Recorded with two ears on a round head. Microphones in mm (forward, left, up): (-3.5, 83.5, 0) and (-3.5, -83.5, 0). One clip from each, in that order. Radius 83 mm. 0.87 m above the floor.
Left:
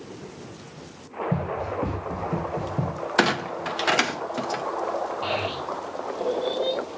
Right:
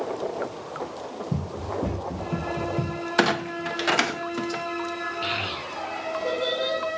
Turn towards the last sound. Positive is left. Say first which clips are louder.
# left 1 dB
turn(degrees=-45)  # may be behind; listen again after turning